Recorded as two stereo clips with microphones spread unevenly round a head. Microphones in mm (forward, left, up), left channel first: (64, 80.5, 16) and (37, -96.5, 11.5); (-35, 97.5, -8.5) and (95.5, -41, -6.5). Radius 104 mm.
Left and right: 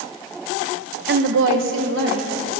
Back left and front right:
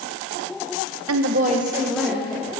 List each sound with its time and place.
1.1 s a woman speaking: 70° right, 0.9 m; by 2.5 s 145° right, 2 m